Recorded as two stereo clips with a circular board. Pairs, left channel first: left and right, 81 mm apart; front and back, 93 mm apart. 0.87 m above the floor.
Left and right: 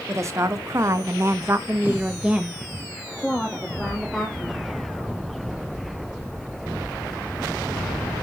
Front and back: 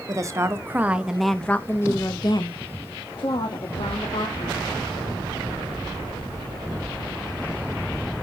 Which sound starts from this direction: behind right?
A woman speaking, at 0.1 s.